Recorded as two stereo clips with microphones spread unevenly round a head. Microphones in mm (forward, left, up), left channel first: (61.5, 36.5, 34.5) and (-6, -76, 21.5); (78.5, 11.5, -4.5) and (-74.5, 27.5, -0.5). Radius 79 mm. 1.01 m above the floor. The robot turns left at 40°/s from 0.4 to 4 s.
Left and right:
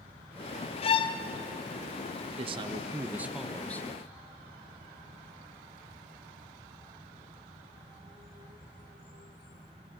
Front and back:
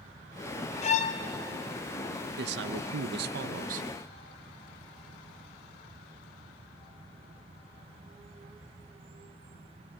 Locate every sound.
0.8 s a violin: 25° left, 0.6 m; by 1.2 s 10° left, 0.6 m
2.4 s a man speaking: 165° right, 0.6 m; by 3.9 s 135° left, 0.6 m